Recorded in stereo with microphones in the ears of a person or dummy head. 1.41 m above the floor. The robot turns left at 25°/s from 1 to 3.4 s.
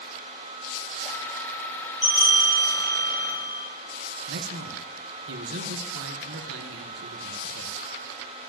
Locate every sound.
2.0 s a bell: 175° right, 5 m; by 3.6 s 150° left, 5 m
4.3 s a man speaking: 75° right (ahead or behind), 1.1 m